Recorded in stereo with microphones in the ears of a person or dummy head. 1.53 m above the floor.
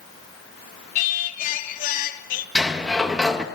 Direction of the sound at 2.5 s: Centre (ahead or behind).